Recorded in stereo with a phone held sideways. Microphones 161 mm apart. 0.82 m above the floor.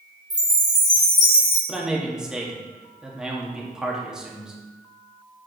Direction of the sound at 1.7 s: 5° right (ahead or behind).